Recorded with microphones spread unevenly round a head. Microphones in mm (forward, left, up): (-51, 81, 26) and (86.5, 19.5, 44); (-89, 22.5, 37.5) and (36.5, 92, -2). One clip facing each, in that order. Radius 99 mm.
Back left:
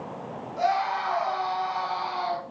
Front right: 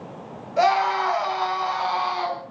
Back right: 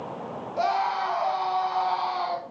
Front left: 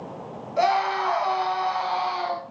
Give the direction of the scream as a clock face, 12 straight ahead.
1 o'clock.